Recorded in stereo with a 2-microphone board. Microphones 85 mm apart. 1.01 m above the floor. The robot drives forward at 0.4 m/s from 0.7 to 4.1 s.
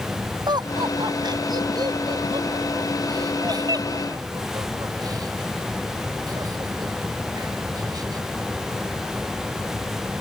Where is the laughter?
55° right (ahead or behind); by 8.2 s 45° right (ahead or behind).